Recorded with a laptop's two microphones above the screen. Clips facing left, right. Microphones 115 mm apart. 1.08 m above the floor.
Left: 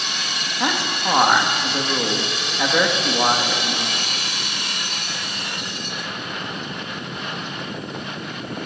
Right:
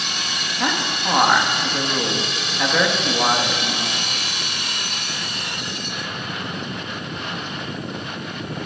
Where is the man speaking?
10° left (ahead or behind), 1.7 m.